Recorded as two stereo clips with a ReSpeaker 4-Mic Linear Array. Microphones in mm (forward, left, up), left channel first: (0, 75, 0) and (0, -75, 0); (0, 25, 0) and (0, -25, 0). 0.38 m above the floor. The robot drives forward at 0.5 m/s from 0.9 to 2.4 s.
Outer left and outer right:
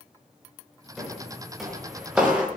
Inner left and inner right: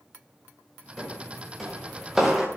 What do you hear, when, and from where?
1.0 s footsteps: centre (ahead or behind), 6.5 m; by 2.5 s 10° right (ahead or behind), 4.5 m